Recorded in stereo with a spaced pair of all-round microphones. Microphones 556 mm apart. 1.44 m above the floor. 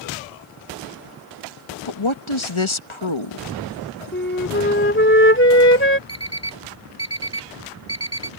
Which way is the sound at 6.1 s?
10° left (ahead or behind).